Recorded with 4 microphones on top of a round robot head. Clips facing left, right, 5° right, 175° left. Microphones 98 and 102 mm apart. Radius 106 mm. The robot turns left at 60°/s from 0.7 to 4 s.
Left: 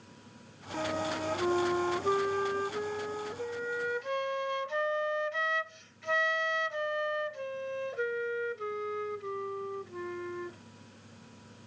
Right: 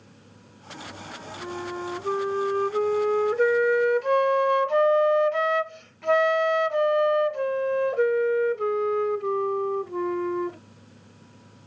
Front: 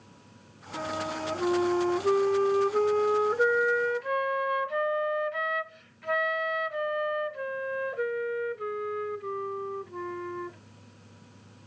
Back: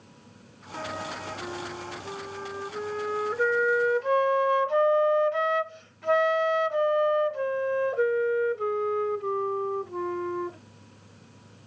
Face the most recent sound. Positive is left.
turn(degrees=-120)